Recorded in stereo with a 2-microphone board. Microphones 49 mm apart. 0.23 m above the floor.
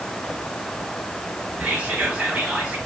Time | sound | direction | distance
1.6 | whispering | 20° right (ahead or behind) | 1.1 m